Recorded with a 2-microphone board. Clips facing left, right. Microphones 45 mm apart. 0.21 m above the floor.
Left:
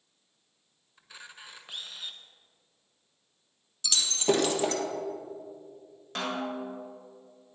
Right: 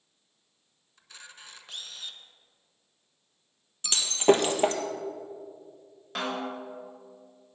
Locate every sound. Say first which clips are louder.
1.0 s a camera shutter: left 2 dB; 10° left (ahead or behind), 0.9 m
3.8 s breaking glass: right 5 dB; 35° right (ahead or behind), 1.5 m
6.2 s a snare drum: even; 5° right (ahead or behind), 3.5 m